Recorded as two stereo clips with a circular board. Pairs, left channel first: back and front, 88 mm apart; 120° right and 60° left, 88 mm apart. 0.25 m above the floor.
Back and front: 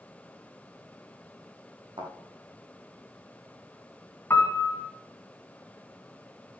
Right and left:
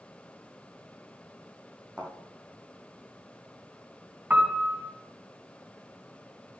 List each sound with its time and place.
2.0 s a thud: 15° right, 5 m
4.3 s a piano: 125° left, 2 m